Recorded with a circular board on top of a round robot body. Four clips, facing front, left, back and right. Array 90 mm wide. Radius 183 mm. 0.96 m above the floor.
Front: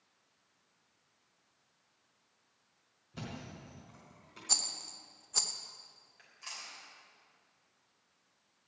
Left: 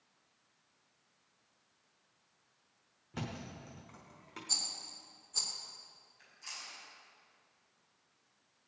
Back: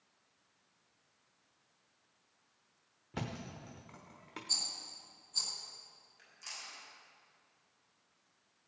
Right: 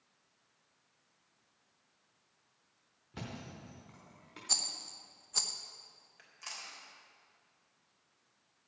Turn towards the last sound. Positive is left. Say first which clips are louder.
# right 2 dB, front 2 dB
turn(degrees=-70)